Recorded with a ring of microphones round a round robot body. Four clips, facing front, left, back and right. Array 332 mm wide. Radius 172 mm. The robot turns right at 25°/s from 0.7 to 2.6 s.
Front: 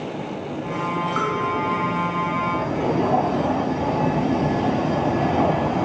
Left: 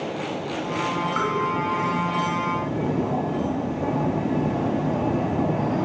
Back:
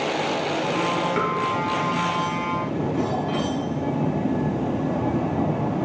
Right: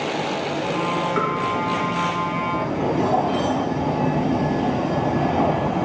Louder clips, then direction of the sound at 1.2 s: Right 2 dB, even; 145° right.